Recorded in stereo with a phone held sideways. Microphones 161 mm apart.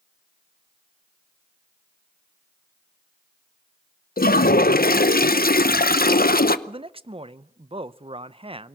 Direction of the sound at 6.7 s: 35° right (ahead or behind).